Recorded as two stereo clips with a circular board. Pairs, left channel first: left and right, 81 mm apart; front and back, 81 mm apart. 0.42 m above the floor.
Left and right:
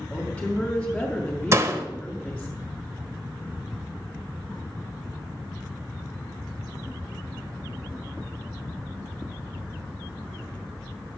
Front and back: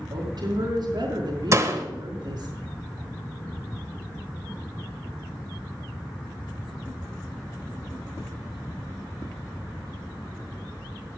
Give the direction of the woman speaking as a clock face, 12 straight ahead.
6 o'clock.